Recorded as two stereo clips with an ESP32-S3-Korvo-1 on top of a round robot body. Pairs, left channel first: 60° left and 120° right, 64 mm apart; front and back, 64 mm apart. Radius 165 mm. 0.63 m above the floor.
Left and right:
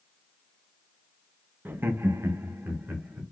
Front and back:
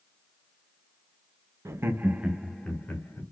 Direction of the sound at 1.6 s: 165° right.